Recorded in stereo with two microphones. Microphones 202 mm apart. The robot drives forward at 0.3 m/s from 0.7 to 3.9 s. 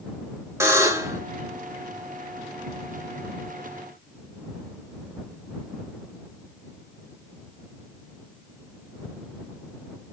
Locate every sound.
0.6 s a buzzer: 15° right (ahead or behind), 1.1 m